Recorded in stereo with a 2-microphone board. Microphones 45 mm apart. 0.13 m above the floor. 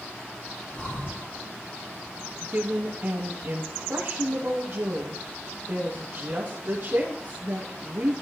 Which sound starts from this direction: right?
A woman speaking, at 2.4 s.